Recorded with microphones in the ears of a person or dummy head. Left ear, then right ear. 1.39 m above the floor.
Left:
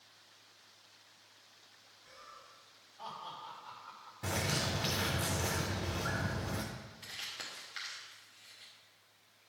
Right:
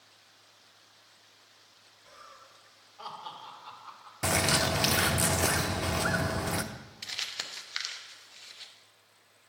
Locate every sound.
2.0 s laughter: 25° right (ahead or behind), 3 m; by 4.3 s 45° right (ahead or behind), 2 m
4.2 s a bird: 45° right (ahead or behind), 0.5 m
7.0 s crumpling: 45° right (ahead or behind), 0.8 m